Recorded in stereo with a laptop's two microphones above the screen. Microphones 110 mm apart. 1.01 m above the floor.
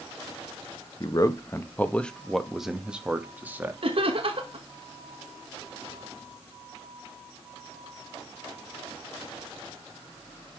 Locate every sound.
1.0 s a man speaking: 40° left (ahead or behind), 1.0 m; by 3.7 s 20° right (ahead or behind), 1.8 m
3.8 s laughter: 60° right (ahead or behind), 1.3 m